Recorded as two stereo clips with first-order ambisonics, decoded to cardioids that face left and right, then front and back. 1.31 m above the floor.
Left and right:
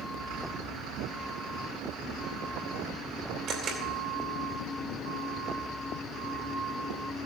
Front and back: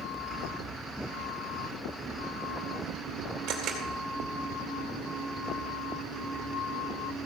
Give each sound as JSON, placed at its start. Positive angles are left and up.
{"t": 3.5, "sound": "a camera shutter", "azimuth_deg": -140, "distance_m": 2.5}